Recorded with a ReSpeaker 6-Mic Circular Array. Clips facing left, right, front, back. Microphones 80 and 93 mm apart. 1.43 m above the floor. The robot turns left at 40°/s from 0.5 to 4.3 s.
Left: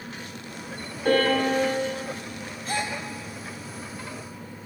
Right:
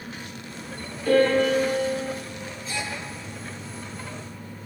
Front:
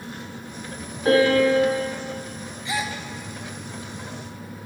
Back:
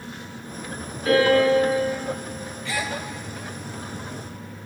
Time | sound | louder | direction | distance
1.1 | a piano | right 2 dB, even | 55° left | 3.5 m
2.6 | a gasp | left 4 dB, front 1 dB | 65° left | 0.7 m